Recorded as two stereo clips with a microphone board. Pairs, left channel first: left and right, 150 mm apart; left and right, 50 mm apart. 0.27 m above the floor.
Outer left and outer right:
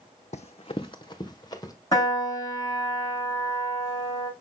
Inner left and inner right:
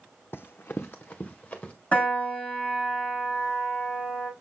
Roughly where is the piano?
Left.